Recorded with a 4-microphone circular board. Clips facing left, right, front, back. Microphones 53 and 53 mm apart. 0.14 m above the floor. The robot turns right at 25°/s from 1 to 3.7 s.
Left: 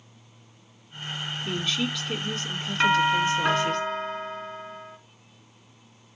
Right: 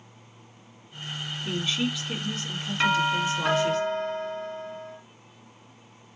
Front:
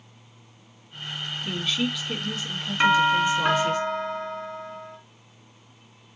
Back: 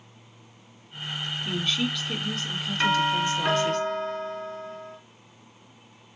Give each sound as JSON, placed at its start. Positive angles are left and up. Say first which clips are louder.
{"t": 1.4, "sound": "a woman speaking", "louder": "right 1 dB, front 1 dB", "azimuth_deg": -80, "distance_m": 1.1}
{"t": 2.8, "sound": "a doorbell", "louder": "left 3 dB, front 5 dB", "azimuth_deg": 20, "distance_m": 2.0}